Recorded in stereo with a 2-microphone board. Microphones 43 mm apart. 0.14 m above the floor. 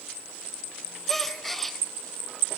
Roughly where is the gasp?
Centre.